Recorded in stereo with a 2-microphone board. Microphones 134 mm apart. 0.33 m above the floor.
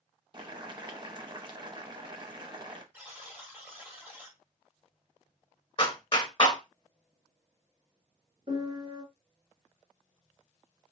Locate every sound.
0.3 s boiling: 35° right (ahead or behind), 0.6 m
2.9 s a buzzer: 15° right (ahead or behind), 1.2 m
5.8 s a clap: 40° left (ahead or behind), 1.0 m
8.5 s a piano: 45° right (ahead or behind), 1.7 m